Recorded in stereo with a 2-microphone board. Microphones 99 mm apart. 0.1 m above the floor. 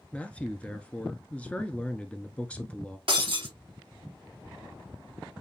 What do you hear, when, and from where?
0.1 s a man speaking: 15° left (ahead or behind), 1.1 m
3.1 s breaking glass: 60° right (ahead or behind), 3.5 m